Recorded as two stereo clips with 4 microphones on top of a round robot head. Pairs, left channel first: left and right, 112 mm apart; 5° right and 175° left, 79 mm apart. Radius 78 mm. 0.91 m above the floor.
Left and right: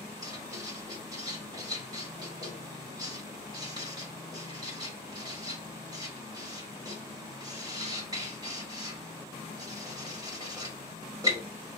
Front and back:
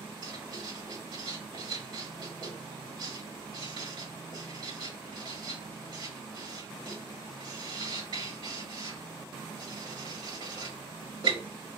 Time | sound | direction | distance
0.2 | writing | 145° right | 1.7 m